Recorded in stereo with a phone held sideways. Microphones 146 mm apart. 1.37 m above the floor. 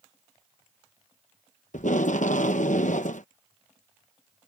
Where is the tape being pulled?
65° left (ahead or behind).